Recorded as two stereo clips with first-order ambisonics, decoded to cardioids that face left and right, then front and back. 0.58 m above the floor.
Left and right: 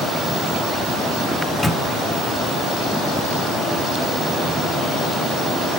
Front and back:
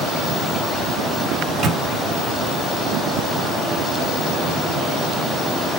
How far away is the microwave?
About 0.8 m.